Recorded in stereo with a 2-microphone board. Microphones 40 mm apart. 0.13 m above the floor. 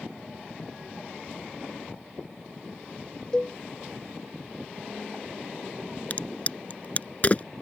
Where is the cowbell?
20° left (ahead or behind).